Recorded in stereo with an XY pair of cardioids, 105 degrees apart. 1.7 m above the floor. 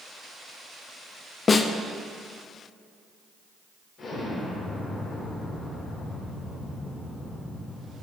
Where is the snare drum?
30° left, 0.6 m.